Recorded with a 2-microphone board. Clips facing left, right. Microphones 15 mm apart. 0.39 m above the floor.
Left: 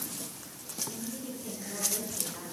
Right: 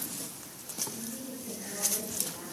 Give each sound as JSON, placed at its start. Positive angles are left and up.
{"t": 0.9, "sound": "a woman speaking", "side_deg": 55, "distance_m": 6.0}